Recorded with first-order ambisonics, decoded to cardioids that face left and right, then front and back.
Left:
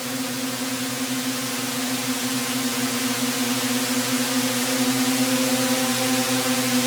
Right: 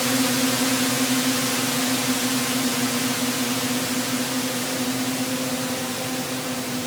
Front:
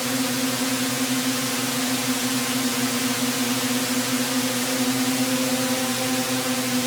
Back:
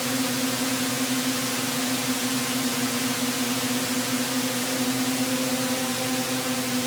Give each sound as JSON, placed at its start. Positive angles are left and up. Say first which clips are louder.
{"t": 0.0, "sound": "a drone", "louder": "right 6 dB, front 2 dB", "azimuth_deg": -75}